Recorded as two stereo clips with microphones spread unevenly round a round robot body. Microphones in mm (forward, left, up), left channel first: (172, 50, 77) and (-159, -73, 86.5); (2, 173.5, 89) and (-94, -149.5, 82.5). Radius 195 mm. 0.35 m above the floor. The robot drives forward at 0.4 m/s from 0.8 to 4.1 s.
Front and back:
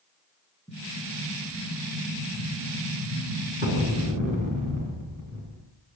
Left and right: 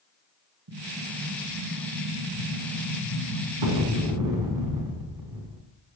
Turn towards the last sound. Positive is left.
turn(degrees=-90)